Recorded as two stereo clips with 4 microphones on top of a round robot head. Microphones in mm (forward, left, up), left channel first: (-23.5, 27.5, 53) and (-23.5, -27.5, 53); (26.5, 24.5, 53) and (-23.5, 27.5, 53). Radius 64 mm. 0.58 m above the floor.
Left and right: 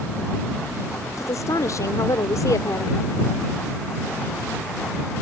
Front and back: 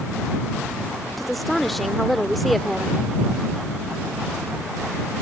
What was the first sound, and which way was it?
A woman speaking, 85° left.